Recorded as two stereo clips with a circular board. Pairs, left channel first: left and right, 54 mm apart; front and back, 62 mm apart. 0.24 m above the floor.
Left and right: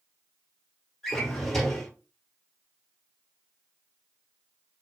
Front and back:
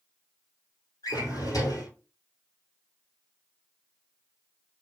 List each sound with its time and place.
1.0 s a drawer: 5° left, 1.4 m